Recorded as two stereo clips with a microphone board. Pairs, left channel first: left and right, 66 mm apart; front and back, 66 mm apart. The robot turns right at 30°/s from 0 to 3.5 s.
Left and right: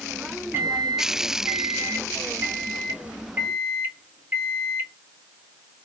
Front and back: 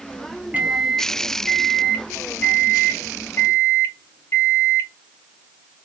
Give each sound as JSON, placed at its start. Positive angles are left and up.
{"t": 0.5, "sound": "a microwave", "azimuth_deg": -125, "distance_m": 0.6}